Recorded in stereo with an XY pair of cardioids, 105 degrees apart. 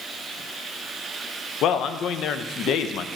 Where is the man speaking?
70° left, 0.5 m.